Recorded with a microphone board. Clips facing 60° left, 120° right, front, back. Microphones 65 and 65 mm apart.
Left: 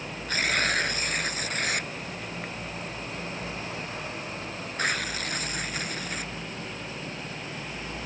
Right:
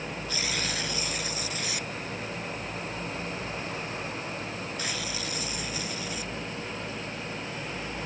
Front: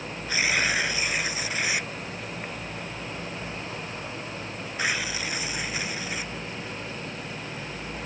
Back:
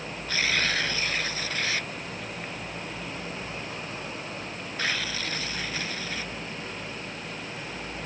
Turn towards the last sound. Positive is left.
turn(degrees=70)